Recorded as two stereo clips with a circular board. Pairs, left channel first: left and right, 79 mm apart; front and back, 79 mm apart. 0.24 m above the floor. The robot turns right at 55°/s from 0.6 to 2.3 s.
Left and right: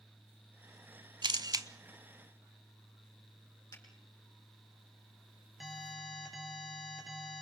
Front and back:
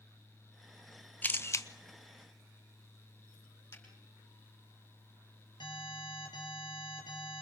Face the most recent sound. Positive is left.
turn(degrees=0)